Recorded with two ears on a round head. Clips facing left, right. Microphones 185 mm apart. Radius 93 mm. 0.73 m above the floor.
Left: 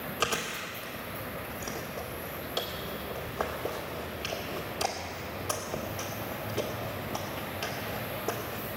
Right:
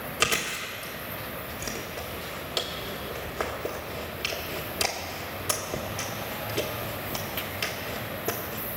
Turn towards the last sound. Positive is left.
turn(degrees=-25)  # may be behind; listen again after turning